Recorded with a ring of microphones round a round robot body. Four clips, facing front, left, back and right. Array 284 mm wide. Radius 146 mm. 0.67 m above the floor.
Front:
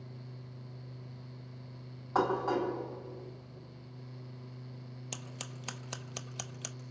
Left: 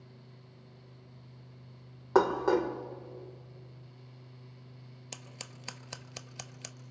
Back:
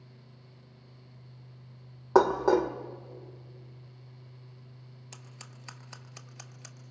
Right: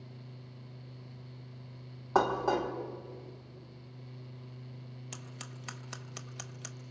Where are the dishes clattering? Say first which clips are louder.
Left 3 dB, back 7 dB; 165° left, 1.6 m.